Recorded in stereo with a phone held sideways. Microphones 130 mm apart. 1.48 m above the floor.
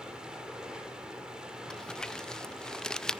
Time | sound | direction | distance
0.0 | running water | 5° right (ahead or behind) | 4 m
1.7 | crumpling | 5° left (ahead or behind) | 0.6 m